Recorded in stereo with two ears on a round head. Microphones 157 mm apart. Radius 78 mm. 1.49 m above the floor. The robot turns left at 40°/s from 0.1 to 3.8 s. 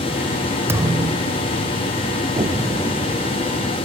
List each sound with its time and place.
0.7 s a thud: 15° right; by 1.5 s 45° right
2.4 s an explosion: 155° right; by 3.8 s 150° left